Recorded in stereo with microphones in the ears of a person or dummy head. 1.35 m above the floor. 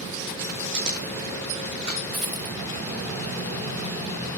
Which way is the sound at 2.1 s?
5° right (ahead or behind).